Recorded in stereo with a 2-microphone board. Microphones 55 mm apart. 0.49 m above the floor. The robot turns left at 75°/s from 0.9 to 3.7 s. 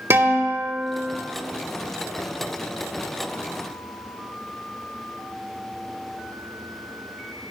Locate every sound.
0.1 s a guitar: 45° right (ahead or behind), 1.4 m; by 1.2 s 40° right (ahead or behind), 1.4 m